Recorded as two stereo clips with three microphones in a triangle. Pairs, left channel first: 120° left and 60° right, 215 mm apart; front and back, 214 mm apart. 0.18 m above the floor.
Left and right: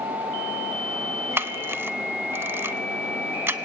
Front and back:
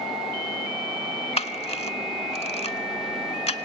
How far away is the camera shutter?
About 0.7 m.